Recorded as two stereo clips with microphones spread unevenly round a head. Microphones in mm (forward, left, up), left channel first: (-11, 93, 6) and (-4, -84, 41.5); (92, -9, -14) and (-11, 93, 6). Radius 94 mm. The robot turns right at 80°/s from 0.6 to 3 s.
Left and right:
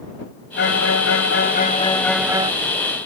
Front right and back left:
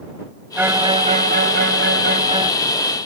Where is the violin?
60° left; by 2.5 s 150° right.